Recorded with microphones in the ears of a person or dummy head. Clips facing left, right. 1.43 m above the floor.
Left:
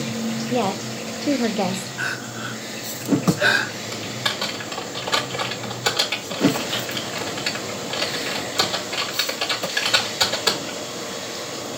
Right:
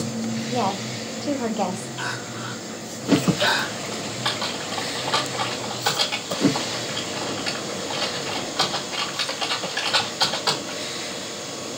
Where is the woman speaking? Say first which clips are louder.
Left 2 dB; 30° left (ahead or behind), 0.5 m.